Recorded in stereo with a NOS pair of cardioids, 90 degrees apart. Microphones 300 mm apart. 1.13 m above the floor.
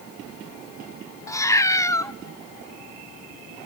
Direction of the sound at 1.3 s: 10° left.